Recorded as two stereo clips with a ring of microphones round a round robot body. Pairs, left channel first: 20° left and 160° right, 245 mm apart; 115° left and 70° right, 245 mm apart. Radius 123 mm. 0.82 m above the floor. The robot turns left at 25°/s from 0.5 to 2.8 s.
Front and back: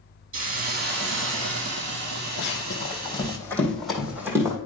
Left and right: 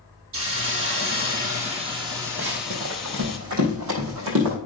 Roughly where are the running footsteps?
Ahead.